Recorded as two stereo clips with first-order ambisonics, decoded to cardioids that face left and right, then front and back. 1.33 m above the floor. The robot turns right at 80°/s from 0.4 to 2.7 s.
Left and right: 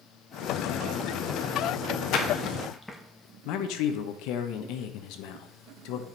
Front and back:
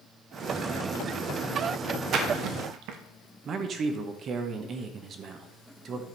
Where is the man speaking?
120° left, 1.1 m.